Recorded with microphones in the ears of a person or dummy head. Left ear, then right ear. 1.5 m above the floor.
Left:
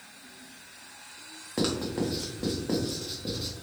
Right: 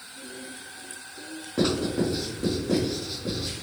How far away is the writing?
About 0.9 m.